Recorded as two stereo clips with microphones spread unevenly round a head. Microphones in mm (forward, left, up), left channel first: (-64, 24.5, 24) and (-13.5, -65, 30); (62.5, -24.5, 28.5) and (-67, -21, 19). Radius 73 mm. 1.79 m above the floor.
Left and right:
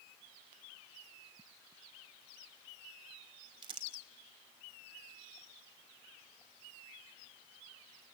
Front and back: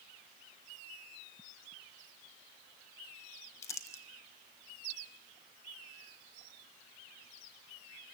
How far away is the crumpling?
About 0.8 m.